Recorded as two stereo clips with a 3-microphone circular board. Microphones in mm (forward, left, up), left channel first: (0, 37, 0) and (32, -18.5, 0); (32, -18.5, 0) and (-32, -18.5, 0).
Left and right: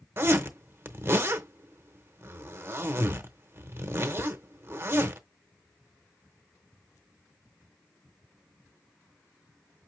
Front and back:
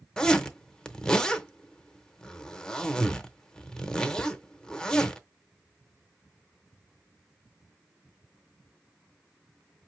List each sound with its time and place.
0.2 s a zipper: 75° right, 0.7 m